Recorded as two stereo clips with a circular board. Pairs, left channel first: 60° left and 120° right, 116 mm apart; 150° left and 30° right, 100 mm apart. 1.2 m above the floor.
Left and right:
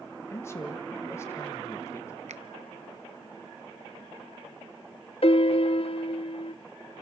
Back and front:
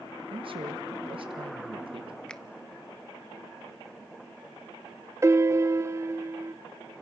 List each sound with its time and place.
0.3 s a man speaking: 5° right, 1.3 m
2.3 s a finger snap: 130° right, 0.8 m
5.2 s a piano: 30° left, 0.5 m